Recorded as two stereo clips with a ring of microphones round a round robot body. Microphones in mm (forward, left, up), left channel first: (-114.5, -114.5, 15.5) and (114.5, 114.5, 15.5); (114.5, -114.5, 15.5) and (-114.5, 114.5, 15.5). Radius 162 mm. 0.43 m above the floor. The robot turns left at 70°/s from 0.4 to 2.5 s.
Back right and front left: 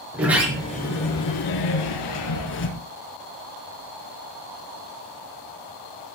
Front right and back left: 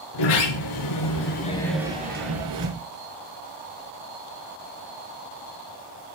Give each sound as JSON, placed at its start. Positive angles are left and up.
{"t": 0.1, "sound": "a sliding door", "azimuth_deg": -40, "distance_m": 6.0}